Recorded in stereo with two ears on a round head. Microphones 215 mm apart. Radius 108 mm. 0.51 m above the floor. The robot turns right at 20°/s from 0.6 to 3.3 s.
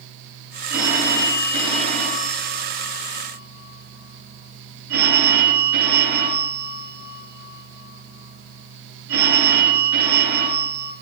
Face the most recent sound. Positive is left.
turn(degrees=-120)